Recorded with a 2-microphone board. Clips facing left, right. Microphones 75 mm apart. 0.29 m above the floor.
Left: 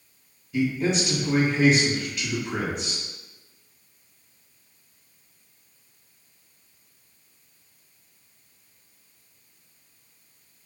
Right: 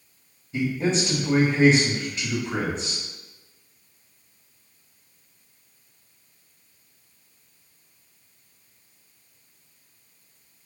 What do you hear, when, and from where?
0.5 s a man speaking: 35° right (ahead or behind), 1.4 m